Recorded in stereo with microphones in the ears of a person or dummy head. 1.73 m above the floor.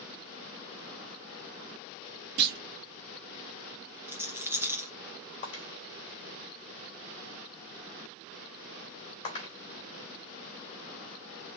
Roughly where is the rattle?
Centre.